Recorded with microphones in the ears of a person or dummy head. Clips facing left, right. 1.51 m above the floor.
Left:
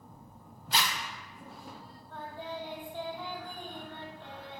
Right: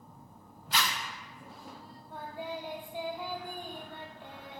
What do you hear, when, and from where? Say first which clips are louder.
0.7 s a zipper: left 1 dB; 35° left (ahead or behind), 1.7 m
2.1 s singing: right 1 dB; 10° right (ahead or behind), 1.6 m